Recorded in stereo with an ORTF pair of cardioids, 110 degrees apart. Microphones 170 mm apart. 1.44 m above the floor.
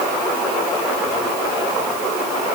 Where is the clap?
No clap in this recording.